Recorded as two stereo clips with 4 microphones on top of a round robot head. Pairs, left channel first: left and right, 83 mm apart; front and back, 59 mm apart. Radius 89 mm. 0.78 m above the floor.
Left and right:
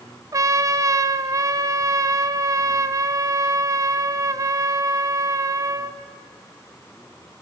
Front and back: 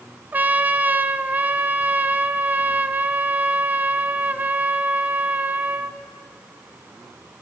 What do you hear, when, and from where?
0.3 s a trumpet: 125° right, 0.7 m